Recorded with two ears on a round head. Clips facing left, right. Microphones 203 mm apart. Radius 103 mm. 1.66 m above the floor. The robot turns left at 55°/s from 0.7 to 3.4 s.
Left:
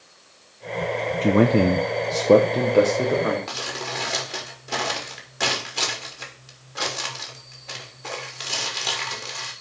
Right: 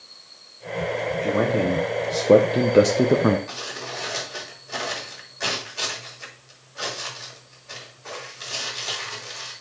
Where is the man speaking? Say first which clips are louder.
Left 5 dB; 55° left, 0.8 m; by 3.4 s 60° right, 0.8 m.